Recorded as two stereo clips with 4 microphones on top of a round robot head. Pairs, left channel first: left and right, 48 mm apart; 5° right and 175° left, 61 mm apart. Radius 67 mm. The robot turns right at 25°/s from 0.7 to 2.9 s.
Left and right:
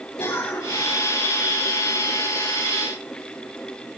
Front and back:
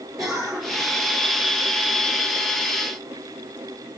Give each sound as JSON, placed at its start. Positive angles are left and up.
{"t": 0.2, "sound": "a cough", "azimuth_deg": 90, "distance_m": 7.5}